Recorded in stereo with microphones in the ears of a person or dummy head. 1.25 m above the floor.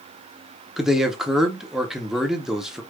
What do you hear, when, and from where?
0.8 s a man speaking: 5° right (ahead or behind), 0.8 m